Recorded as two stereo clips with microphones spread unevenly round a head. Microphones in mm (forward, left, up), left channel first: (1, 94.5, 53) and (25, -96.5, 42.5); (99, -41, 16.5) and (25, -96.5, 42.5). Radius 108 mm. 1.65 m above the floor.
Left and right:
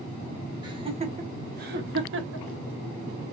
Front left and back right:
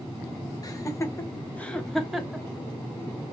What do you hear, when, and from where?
0.6 s laughter: 15° right, 1.9 m; by 2.5 s 65° right, 2.0 m